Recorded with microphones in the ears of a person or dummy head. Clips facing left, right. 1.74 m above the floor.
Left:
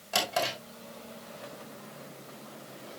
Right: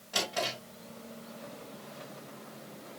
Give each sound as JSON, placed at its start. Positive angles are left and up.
{"t": 0.1, "sound": "a drawer", "side_deg": 65, "distance_m": 6.0}